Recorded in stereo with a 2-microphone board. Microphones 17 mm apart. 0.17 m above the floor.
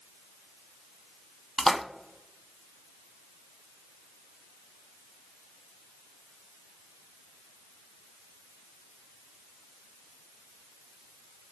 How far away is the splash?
About 0.6 m.